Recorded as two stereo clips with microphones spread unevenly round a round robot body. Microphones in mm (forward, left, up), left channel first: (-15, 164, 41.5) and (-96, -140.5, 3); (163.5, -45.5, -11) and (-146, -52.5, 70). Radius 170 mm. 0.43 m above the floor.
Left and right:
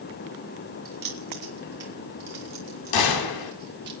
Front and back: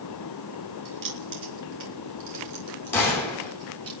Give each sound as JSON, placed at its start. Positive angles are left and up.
{"t": 0.8, "sound": "keys jangling", "azimuth_deg": -150, "distance_m": 4.5}
{"t": 2.9, "sound": "a gunshot", "azimuth_deg": 80, "distance_m": 3.5}